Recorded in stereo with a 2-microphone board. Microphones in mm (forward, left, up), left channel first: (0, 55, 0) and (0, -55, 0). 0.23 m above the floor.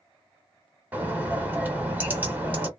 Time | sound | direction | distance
0.9 | a bird | 15° right (ahead or behind) | 1.3 m